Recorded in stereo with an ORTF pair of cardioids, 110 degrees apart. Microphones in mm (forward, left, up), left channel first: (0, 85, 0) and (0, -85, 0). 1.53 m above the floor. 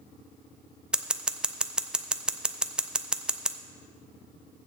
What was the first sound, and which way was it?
Scissors, 5° right.